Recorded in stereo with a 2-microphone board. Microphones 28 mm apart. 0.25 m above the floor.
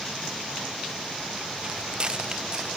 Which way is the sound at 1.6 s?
35° right (ahead or behind).